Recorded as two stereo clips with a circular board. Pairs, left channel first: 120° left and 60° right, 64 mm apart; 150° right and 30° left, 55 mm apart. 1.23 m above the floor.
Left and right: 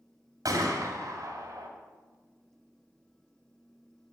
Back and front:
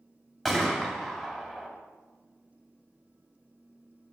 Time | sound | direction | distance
0.5 | a gunshot | 65° right | 2.5 m